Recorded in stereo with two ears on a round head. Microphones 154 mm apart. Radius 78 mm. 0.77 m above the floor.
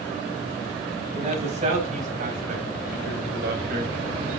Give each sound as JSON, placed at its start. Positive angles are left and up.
{"t": 1.1, "sound": "a man speaking", "side_deg": -40, "distance_m": 5.0}